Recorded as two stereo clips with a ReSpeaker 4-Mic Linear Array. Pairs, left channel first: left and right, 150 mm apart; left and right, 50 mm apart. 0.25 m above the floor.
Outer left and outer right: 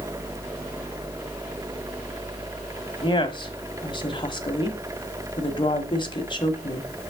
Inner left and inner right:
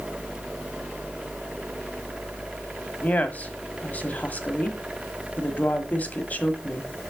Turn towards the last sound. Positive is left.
turn(degrees=35)  # may be behind; listen again after turning